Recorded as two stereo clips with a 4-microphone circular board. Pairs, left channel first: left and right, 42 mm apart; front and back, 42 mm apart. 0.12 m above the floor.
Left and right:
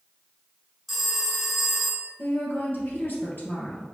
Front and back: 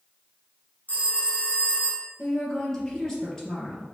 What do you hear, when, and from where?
0.9 s a phone ringing: 5° left, 0.9 m
2.2 s a woman speaking: 75° left, 3 m